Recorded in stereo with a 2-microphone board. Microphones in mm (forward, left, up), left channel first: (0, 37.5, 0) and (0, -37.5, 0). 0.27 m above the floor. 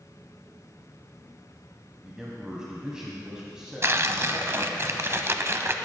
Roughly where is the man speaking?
Centre.